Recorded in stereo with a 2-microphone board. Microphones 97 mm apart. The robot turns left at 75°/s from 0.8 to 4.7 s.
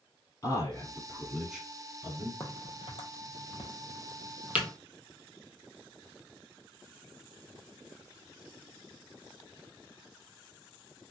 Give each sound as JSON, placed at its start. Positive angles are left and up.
{"t": 0.4, "sound": "a man speaking", "side_deg": 35, "distance_m": 1.5}
{"t": 2.4, "sound": "a crack", "side_deg": 30, "distance_m": 0.8}